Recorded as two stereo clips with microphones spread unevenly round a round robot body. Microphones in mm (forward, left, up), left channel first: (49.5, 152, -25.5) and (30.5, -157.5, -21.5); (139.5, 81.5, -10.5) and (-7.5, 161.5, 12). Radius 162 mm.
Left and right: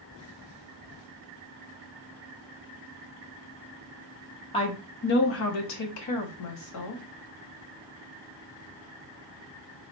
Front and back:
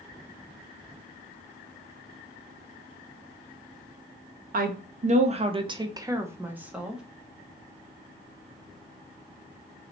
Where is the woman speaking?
155° left, 0.7 m; by 7.0 s 60° left, 1.3 m.